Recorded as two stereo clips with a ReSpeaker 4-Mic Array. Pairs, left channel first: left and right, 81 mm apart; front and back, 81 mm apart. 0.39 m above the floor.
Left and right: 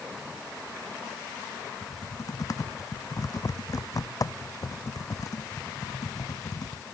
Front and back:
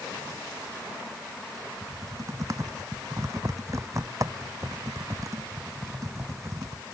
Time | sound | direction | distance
1.8 | typing on a keyboard | 130° left | ?